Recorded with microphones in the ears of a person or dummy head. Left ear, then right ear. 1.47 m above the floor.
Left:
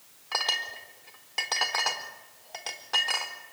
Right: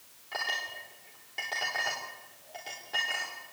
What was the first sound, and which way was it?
A clink, 40° left (ahead or behind).